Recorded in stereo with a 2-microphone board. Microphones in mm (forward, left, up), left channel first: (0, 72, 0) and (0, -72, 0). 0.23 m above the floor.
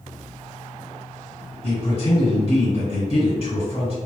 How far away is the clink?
No clink in this recording.